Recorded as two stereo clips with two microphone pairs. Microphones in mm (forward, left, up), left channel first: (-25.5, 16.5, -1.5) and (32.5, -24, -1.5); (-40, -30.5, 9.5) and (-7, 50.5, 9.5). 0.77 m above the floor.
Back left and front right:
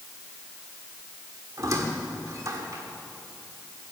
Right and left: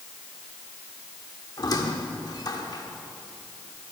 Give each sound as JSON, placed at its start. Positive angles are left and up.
{"t": 1.6, "sound": "a squeak", "azimuth_deg": -70, "distance_m": 1.5}